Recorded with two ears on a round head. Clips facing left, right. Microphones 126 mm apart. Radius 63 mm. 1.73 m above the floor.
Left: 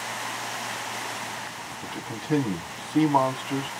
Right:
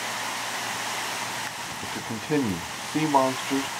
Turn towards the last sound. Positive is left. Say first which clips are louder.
# right 1 dB
turn(degrees=-5)  # may be behind; listen again after turning